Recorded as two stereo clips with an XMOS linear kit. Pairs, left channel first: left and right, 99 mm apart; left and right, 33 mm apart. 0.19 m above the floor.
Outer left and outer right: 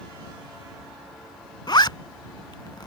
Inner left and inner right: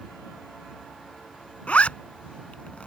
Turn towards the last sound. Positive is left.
turn(degrees=45)  # may be behind; listen again after turning